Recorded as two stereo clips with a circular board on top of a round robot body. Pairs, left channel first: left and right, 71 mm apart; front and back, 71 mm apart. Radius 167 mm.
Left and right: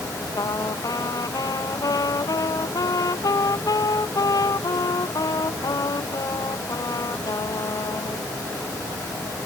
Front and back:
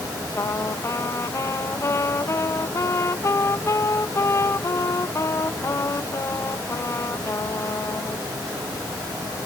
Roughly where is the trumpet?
Ahead left.